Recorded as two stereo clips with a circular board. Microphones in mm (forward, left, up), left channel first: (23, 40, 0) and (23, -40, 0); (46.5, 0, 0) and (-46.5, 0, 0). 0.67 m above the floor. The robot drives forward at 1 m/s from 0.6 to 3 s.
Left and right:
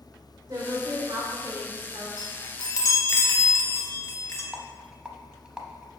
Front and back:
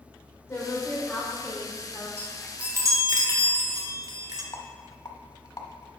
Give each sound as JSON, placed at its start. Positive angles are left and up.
{"t": 0.5, "sound": "a woman speaking", "azimuth_deg": -60, "distance_m": 2.0}
{"t": 2.2, "sound": "a chime", "azimuth_deg": 65, "distance_m": 0.7}
{"t": 4.5, "sound": "a rattle", "azimuth_deg": -15, "distance_m": 0.9}